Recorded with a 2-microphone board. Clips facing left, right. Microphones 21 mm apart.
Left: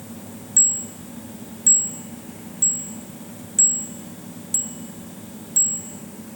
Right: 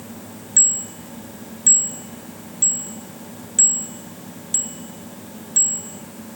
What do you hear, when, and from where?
0.6 s a bicycle bell: 20° right (ahead or behind)